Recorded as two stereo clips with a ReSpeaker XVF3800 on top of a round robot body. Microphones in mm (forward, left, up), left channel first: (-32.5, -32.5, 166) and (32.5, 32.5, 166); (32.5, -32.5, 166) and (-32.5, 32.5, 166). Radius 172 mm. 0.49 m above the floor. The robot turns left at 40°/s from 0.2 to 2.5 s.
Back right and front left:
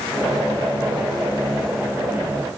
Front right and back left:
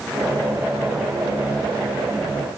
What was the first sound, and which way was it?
Only background noise.